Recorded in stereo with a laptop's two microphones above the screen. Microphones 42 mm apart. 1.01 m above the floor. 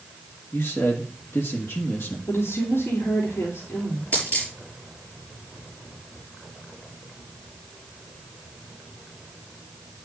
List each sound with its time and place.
0.5 s a man speaking: 65° left (ahead or behind), 1.6 m
2.3 s a woman speaking: 70° left (ahead or behind), 3 m
4.1 s a dropped coin: 35° left (ahead or behind), 6 m